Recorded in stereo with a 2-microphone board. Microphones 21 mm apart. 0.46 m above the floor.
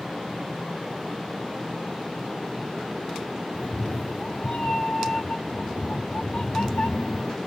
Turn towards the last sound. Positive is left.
turn(degrees=65)  # may be behind; listen again after turning